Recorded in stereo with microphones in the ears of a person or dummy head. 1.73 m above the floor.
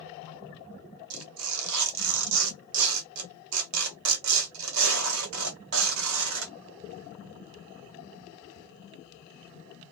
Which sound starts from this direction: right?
Tearing paper, at 1.1 s.